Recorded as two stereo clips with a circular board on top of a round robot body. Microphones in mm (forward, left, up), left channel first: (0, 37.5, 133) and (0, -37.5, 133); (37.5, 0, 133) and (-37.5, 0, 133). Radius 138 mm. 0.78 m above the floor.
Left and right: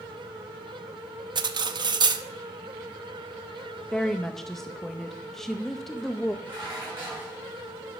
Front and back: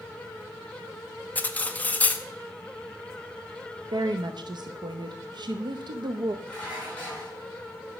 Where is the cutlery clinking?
70° right, 0.7 m.